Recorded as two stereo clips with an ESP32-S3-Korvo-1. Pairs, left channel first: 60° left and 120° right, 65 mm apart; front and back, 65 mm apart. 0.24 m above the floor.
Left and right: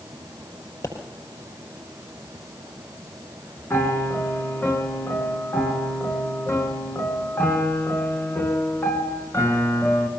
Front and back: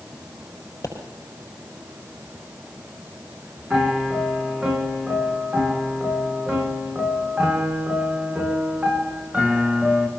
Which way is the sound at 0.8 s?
40° left.